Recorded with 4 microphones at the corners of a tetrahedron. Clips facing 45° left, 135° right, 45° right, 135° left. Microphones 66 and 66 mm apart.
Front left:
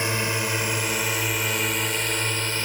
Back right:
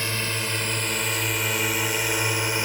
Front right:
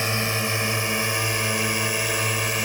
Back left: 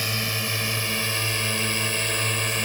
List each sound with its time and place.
0.0 s a drone: 5° right; by 2.7 s 105° right